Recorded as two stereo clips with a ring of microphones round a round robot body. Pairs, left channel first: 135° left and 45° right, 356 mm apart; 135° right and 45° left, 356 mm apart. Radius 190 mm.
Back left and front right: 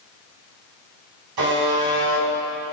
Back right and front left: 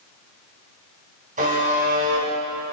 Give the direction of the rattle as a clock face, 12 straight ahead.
I don't hear a rattle.